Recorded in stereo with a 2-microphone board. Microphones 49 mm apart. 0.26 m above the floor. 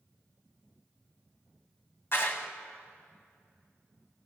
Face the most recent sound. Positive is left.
turn(degrees=50)  # may be behind; listen again after turning